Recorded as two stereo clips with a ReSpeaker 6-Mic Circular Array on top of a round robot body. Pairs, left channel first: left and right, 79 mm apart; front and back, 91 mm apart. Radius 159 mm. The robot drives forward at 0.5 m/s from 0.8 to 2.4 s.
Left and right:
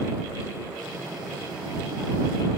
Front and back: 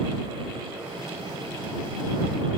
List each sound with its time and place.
Only background noise.